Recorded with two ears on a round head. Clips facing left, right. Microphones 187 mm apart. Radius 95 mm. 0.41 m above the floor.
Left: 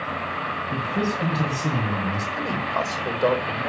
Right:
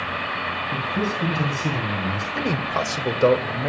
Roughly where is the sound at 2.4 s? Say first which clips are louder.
Right 5 dB; right.